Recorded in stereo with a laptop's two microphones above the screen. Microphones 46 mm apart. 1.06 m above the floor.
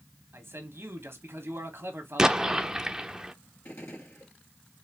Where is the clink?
I don't hear a clink.